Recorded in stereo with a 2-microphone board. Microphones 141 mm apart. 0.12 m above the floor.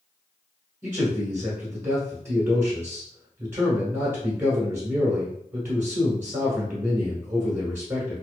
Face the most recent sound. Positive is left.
turn(degrees=-20)  # may be behind; listen again after turning